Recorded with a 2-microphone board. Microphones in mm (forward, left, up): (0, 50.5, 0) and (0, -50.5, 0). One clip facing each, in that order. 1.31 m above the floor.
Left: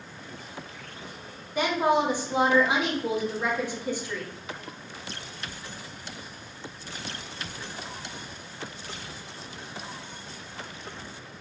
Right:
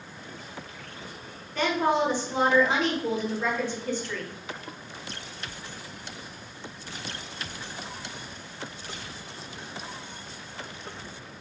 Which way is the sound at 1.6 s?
15° left (ahead or behind).